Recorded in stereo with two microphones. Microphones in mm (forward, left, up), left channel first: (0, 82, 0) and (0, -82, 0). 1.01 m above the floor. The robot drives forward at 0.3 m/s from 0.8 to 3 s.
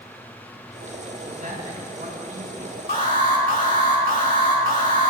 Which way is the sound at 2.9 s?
55° left (ahead or behind).